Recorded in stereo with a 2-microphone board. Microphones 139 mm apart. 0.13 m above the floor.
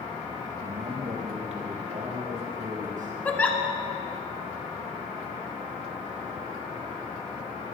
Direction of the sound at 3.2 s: 10° left (ahead or behind).